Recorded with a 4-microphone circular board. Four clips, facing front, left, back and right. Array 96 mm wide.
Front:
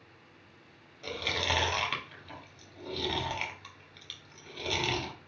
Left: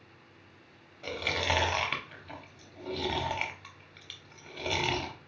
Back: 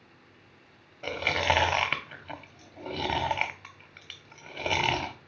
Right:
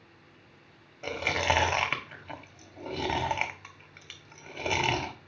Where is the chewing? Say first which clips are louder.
Right 4 dB, back 6 dB; 150° right, 0.7 m.